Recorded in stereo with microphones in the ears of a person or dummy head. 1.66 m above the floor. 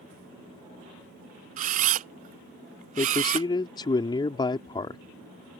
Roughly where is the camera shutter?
Right.